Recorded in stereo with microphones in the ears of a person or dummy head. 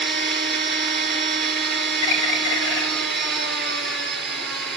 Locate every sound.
0.0 s a machine running: centre (ahead or behind), 6 m
2.0 s a bird: 75° left (ahead or behind), 4 m